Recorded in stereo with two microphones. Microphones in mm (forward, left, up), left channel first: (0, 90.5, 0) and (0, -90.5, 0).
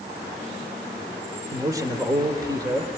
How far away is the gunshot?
No gunshot in this recording.